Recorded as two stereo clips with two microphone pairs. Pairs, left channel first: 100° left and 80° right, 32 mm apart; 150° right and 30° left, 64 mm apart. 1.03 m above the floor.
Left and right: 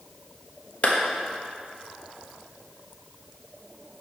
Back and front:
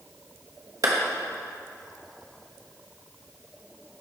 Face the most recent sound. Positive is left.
turn(degrees=55)